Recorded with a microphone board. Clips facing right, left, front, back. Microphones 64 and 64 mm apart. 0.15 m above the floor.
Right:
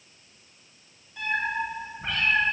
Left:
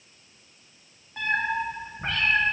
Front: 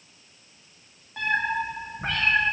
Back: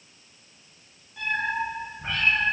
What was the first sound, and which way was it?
A cat meowing, 40° left.